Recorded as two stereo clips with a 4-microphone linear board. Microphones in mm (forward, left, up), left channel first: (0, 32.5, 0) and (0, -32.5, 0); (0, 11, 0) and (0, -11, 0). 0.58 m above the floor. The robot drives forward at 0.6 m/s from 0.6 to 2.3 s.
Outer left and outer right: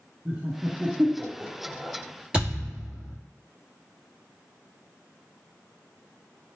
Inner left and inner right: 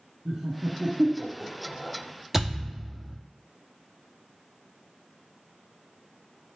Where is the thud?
15° right (ahead or behind), 1.9 m.